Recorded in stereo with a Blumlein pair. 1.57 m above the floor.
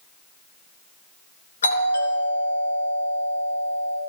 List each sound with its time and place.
1.6 s a doorbell: 70° left, 3 m